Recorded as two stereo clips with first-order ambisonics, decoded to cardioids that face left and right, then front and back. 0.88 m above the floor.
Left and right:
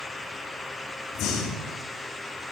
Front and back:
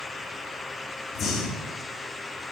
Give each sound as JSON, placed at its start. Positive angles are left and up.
{"t": 1.1, "sound": "breathing", "azimuth_deg": 60, "distance_m": 2.0}